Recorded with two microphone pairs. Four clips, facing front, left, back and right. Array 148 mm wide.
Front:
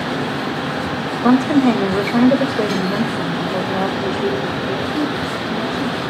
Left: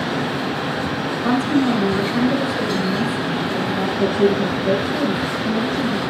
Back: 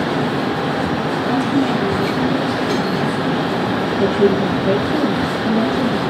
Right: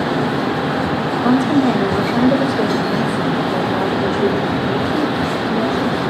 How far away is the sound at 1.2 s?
About 2.5 m.